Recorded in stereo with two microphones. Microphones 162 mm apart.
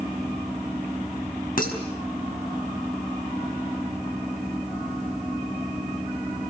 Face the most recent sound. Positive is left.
turn(degrees=60)  # may be behind; listen again after turning